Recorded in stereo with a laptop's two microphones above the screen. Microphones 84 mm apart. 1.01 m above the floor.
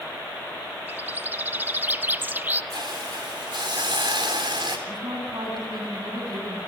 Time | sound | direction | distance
0.9 | a bird | 25° right (ahead or behind) | 0.7 m
2.7 | a hiss | 75° right (ahead or behind) | 4 m
4.9 | a woman speaking | 65° right (ahead or behind) | 9.5 m